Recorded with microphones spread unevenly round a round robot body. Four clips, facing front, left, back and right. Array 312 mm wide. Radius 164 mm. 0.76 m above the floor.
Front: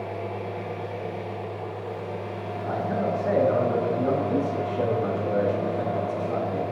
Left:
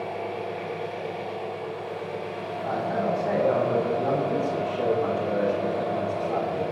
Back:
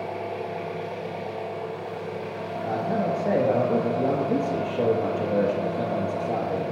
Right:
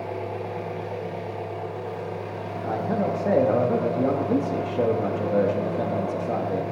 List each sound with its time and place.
0.0 s an engine running: 100° right, 2.5 m
2.6 s a man speaking: 95° right, 1.2 m